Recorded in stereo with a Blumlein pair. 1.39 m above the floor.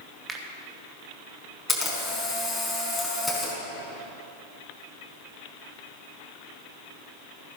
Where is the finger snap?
15° right, 1.9 m.